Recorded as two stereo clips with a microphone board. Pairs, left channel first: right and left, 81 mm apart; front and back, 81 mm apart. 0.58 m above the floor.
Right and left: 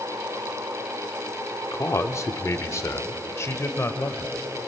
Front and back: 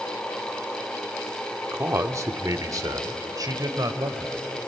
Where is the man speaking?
130° right, 1.0 m; by 4.3 s 145° right, 2 m.